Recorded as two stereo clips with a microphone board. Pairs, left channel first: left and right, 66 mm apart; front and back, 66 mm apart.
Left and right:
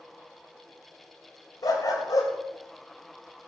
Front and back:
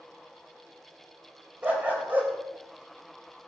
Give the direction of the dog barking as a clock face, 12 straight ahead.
8 o'clock.